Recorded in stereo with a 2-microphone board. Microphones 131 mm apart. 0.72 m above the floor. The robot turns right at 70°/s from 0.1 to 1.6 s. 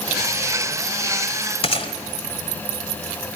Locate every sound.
1.6 s a gunshot: 45° left (ahead or behind), 1.6 m